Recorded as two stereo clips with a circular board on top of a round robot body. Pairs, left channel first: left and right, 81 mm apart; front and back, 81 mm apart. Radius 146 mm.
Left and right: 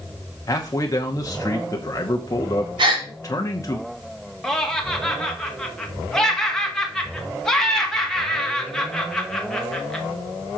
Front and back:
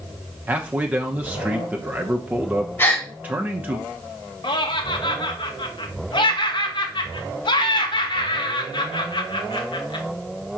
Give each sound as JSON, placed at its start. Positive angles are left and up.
{"t": 0.5, "sound": "a man speaking", "azimuth_deg": 115, "distance_m": 1.0}
{"t": 2.8, "sound": "a gasp", "azimuth_deg": -65, "distance_m": 0.9}
{"t": 4.4, "sound": "laughter", "azimuth_deg": 5, "distance_m": 1.9}